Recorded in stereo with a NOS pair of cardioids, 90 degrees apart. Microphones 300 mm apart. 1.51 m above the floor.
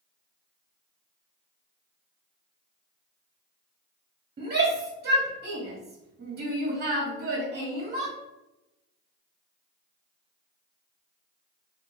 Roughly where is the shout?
Ahead right.